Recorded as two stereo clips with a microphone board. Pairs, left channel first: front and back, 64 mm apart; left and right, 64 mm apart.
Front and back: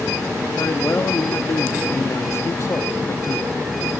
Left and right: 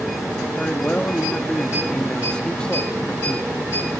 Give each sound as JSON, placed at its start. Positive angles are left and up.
{"t": 0.6, "sound": "a man speaking", "azimuth_deg": 25, "distance_m": 1.3}